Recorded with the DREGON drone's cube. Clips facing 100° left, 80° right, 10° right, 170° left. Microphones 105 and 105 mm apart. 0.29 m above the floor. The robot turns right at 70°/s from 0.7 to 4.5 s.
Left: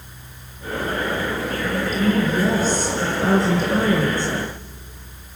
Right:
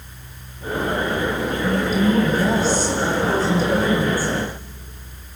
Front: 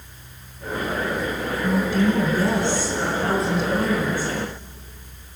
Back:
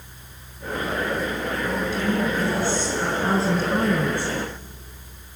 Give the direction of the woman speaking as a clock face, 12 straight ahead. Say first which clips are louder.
Right 2 dB, front 6 dB; 12 o'clock.